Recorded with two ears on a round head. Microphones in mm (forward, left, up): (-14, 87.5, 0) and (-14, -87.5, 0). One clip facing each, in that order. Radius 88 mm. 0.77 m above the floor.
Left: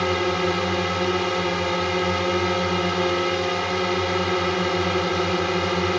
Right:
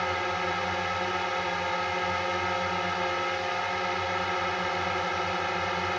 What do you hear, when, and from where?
0.0 s a drone: 65° left (ahead or behind)